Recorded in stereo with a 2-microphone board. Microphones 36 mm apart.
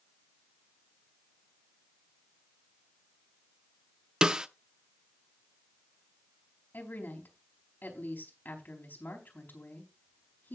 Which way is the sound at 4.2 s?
20° right (ahead or behind).